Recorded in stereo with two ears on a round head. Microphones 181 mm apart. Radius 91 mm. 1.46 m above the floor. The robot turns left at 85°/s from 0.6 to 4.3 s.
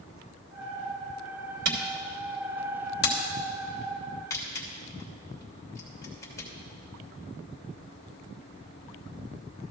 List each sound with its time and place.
1.6 s a camera shutter: 60° right (ahead or behind), 2.5 m; by 6.5 s 15° left (ahead or behind), 2.5 m